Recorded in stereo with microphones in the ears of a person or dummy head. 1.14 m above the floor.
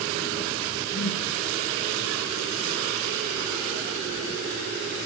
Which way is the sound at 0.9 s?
35° left (ahead or behind).